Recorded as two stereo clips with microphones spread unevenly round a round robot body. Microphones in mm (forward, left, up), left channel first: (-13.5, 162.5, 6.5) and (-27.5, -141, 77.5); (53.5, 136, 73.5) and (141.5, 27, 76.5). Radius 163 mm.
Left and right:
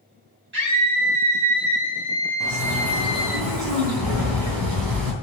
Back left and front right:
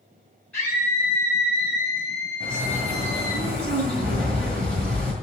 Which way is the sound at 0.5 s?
150° right.